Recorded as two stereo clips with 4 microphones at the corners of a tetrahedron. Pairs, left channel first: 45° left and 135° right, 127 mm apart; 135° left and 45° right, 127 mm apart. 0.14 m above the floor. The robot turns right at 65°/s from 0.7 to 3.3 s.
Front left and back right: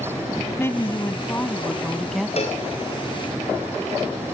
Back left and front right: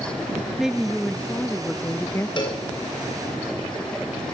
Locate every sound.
0.6 s a woman speaking: 35° left, 1.3 m; by 2.5 s 155° left, 1.3 m
2.4 s a cowbell: 80° left, 8.5 m; by 2.6 s 100° left, 8.5 m